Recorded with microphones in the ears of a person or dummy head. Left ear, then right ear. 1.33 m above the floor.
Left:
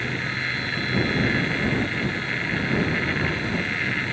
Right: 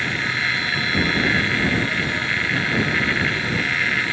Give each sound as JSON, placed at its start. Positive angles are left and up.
{"t": 0.0, "sound": "a machine running", "side_deg": -30}